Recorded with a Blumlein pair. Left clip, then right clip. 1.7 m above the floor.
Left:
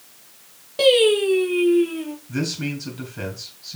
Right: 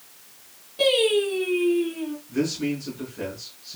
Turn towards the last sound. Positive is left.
turn(degrees=65)